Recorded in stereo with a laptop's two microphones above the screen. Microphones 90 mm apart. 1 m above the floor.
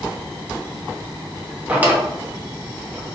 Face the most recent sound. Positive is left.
turn(degrees=-15)  # may be behind; listen again after turning